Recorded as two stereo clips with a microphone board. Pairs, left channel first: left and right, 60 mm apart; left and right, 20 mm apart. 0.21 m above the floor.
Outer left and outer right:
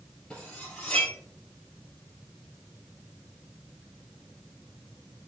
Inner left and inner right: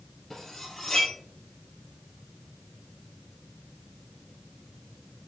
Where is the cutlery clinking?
15° left (ahead or behind), 3 m.